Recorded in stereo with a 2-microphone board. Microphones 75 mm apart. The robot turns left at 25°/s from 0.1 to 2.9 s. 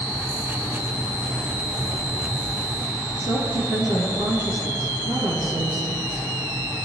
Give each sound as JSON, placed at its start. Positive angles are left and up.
{"t": 3.2, "sound": "a woman speaking", "side_deg": -70, "distance_m": 4.0}